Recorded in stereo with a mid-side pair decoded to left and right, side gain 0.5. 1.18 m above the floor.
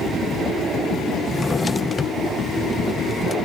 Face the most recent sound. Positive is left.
turn(degrees=20)